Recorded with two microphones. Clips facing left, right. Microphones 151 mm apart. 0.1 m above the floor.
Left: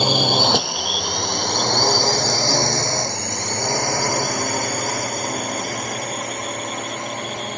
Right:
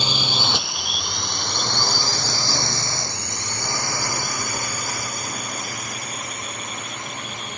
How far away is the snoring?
I don't hear snoring.